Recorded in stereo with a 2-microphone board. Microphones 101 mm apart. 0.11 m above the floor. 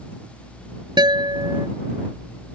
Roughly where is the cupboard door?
No cupboard door in this recording.